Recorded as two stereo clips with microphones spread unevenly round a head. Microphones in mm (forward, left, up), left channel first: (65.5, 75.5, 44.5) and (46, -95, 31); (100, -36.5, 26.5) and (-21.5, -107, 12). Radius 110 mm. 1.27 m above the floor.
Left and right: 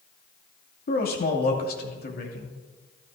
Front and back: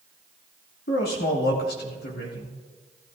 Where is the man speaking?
50° left, 2.5 m.